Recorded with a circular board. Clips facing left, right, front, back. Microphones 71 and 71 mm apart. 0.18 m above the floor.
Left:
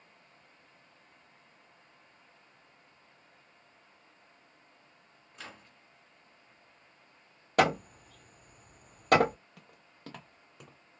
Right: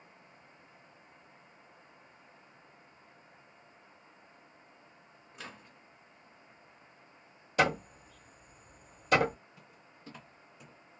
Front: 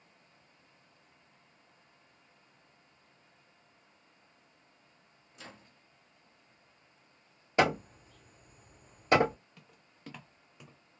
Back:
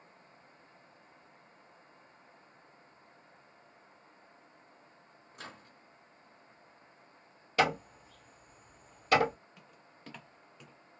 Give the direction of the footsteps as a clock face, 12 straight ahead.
9 o'clock.